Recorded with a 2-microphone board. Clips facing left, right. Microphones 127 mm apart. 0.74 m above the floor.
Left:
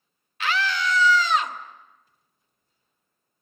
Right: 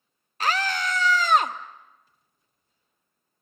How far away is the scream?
About 1.0 m.